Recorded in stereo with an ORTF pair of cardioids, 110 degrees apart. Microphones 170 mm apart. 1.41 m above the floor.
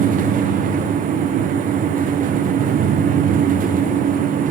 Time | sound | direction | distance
0.0 | a fan | 50° right | 0.8 m